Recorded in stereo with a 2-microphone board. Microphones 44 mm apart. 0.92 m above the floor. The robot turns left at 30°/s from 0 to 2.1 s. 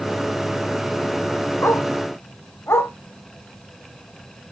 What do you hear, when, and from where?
1.6 s a dog barking: 60° left (ahead or behind), 2 m; by 2.9 s 70° left (ahead or behind), 2 m